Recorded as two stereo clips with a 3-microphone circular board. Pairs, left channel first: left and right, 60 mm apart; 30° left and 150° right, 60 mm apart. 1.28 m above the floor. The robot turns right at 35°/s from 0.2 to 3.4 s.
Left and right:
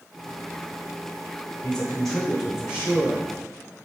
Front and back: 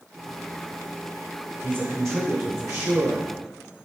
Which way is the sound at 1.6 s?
155° left.